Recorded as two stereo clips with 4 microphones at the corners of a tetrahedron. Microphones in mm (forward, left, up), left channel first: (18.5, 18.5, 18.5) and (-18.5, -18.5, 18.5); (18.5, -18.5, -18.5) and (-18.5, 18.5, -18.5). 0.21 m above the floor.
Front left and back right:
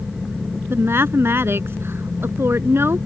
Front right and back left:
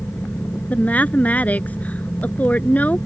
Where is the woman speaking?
105° right.